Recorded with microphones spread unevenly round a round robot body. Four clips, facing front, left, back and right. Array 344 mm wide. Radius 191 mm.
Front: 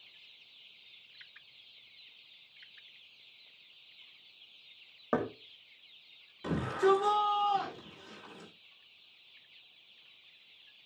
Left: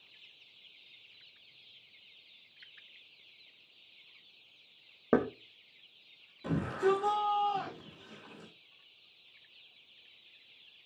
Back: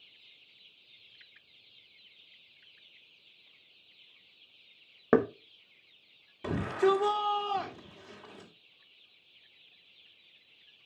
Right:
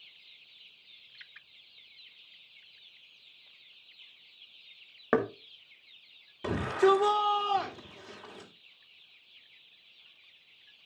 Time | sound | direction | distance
5.1 | knocking | 155° left | 1.1 m
6.4 | a shout | 100° right | 3 m